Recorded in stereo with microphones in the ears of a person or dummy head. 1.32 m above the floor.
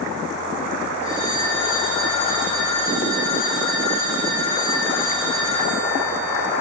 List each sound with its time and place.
1.0 s a phone ringing: 40° left (ahead or behind), 7 m